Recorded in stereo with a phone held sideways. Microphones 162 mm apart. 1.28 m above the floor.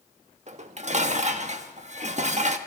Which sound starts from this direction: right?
Dishes clattering, at 0.5 s.